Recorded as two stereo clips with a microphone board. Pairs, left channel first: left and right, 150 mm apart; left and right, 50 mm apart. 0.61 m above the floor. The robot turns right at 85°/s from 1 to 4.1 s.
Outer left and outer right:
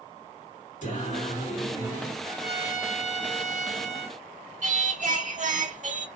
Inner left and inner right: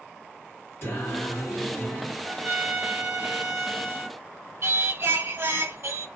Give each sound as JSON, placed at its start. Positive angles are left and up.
{"t": 0.8, "sound": "singing", "azimuth_deg": 75, "distance_m": 1.6}
{"t": 2.2, "sound": "a trumpet", "azimuth_deg": 160, "distance_m": 1.1}
{"t": 4.6, "sound": "singing", "side_deg": -55, "distance_m": 0.7}